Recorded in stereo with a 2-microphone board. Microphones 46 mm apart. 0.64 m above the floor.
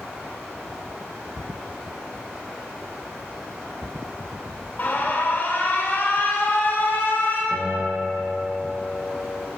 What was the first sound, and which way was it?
Running water, 80° right.